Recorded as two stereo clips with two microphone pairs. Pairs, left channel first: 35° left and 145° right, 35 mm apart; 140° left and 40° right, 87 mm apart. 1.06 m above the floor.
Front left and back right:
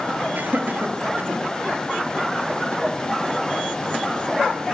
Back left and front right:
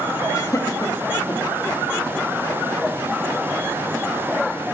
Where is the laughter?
170° right, 1.4 m.